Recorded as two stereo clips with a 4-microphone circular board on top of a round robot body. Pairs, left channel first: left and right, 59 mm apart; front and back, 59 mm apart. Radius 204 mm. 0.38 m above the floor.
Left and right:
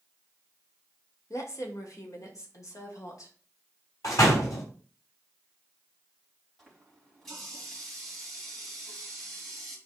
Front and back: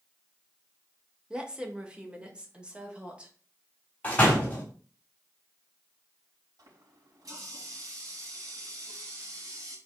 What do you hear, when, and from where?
1.3 s a woman speaking: 110° left, 2.0 m
4.0 s a door slam: 65° left, 3 m
6.6 s a running tap: 175° left, 3.5 m